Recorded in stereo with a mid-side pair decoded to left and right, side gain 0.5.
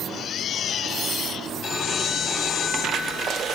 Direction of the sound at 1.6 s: 55° left.